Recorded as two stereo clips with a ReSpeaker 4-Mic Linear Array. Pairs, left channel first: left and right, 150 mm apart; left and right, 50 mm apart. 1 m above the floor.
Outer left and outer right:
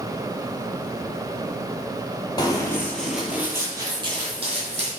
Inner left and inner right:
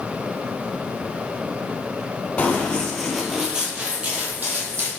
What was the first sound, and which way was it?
Running footsteps, 30° left (ahead or behind).